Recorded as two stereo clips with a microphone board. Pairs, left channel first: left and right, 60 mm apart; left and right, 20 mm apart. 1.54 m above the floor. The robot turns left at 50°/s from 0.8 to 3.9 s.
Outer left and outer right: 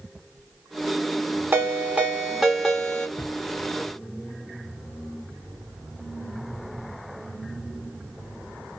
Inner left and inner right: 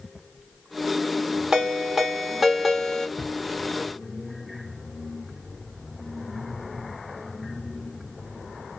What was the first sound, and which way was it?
A ringtone, 125° right.